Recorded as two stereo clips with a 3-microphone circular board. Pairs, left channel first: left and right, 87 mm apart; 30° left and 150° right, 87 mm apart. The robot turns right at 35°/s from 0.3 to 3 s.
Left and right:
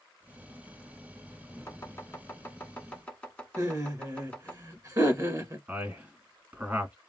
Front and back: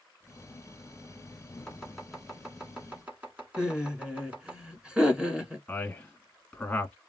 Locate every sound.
1.7 s chopping: 105° left, 1.1 m; by 4.6 s 150° left, 1.1 m
3.6 s laughter: 75° right, 1.3 m
5.7 s a man speaking: 35° right, 1.3 m